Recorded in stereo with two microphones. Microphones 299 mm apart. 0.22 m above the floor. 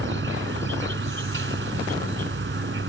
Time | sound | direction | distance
0.0 | an insect | 45° right (ahead or behind) | ?